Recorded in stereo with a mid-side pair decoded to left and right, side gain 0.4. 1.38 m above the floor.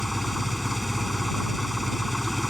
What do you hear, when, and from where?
0.0 s an engine running: 10° left